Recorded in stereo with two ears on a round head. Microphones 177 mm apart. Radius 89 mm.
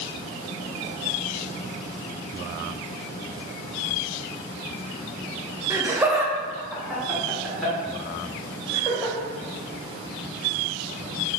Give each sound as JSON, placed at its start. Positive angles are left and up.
{"t": 5.7, "sound": "laughter", "side_deg": -15, "distance_m": 0.5}